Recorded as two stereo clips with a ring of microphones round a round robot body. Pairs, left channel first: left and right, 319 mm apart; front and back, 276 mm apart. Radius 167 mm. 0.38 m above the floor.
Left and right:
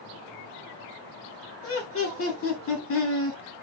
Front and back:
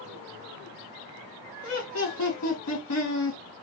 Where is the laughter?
35° left, 3.5 m.